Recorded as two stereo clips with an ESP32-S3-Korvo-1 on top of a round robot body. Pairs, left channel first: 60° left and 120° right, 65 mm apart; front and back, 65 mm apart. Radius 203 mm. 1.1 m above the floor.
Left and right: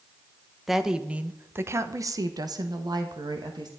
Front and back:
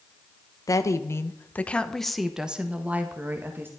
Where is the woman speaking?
35° right, 1.3 m; by 3.7 s 125° right, 2.0 m.